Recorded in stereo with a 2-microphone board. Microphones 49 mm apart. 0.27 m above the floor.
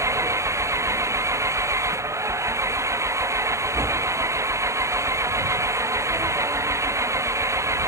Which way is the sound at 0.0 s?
80° right.